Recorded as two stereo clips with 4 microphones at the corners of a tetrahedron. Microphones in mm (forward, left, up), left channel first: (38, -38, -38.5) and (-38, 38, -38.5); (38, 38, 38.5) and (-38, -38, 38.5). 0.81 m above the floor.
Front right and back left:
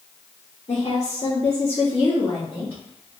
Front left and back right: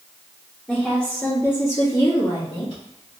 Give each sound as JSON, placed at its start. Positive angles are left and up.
{"t": 0.7, "sound": "a woman speaking", "azimuth_deg": -45, "distance_m": 1.3}